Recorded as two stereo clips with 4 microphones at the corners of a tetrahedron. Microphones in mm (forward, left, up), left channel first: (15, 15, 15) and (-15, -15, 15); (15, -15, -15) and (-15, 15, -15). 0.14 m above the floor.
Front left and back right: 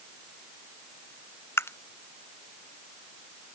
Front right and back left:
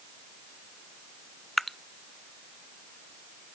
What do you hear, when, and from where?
1.6 s dripping: 40° left